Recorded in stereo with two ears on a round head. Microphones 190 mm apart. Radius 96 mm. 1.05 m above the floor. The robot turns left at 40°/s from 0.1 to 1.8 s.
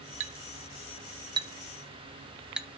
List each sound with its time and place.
0.2 s a clink: 65° right (ahead or behind), 0.6 m; by 2.7 s 5° right (ahead or behind), 0.6 m